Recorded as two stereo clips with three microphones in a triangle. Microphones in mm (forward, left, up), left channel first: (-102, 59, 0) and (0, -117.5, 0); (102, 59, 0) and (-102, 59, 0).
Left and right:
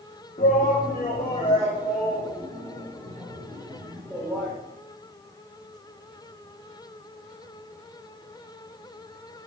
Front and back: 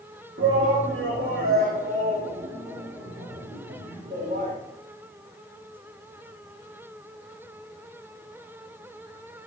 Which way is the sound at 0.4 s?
170° left.